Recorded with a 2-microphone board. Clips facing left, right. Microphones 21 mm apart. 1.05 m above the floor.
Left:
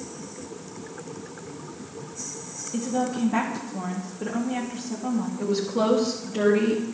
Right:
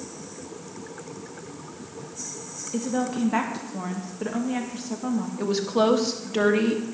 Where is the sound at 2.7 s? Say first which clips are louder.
Even; 35° right (ahead or behind), 1.3 m.